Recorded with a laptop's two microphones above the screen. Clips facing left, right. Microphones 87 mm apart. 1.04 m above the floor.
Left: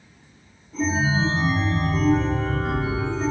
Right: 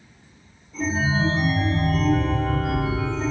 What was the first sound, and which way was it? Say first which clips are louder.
A chime: left 1 dB; 45° left (ahead or behind).